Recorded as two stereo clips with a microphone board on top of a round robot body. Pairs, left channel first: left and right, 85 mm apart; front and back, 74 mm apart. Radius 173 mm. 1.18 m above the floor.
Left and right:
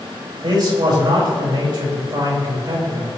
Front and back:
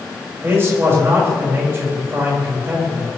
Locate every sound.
0.4 s a man speaking: 125° right, 6 m